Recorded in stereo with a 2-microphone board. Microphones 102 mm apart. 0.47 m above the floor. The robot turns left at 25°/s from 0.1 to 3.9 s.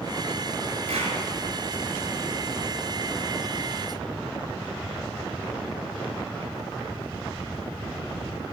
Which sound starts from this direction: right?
A clap, at 0.9 s.